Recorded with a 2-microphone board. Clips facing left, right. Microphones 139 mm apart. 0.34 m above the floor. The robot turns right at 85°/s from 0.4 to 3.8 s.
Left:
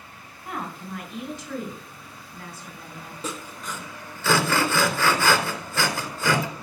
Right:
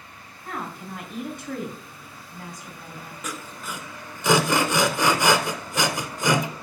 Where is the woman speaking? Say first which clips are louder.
Even; 165° left, 3.5 m; by 3.1 s 35° left, 3.5 m.